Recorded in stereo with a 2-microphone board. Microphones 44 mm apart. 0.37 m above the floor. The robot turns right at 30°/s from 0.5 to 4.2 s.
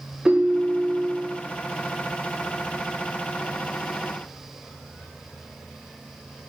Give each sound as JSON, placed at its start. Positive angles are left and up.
{"t": 0.2, "sound": "a ringtone", "side_deg": -15, "distance_m": 0.7}